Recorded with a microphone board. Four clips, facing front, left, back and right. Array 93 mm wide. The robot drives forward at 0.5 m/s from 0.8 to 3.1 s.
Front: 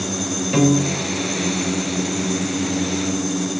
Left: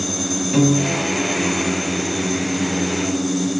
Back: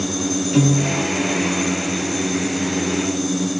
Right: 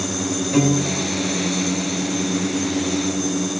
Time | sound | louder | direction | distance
0.5 | a piano | left 2 dB, front 2 dB | 5° left | 1.4 m